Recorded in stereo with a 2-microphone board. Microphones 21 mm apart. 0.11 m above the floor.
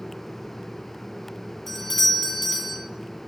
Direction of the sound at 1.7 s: 5° left (ahead or behind).